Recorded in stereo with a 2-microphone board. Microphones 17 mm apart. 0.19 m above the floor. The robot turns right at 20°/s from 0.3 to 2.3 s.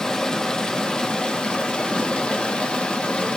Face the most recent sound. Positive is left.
turn(degrees=85)